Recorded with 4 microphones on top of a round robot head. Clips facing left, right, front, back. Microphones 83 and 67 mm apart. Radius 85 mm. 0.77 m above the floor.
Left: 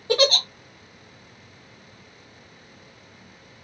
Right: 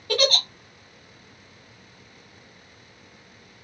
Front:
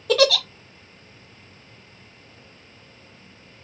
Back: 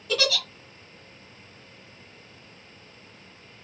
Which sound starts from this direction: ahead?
A giggle, at 0.1 s.